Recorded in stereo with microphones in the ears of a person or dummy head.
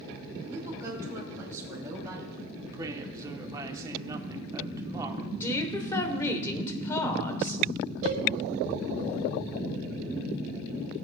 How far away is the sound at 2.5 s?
About 1.2 m.